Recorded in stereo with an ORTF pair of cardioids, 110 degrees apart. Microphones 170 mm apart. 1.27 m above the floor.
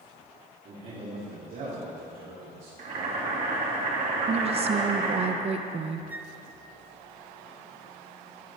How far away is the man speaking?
About 3.5 m.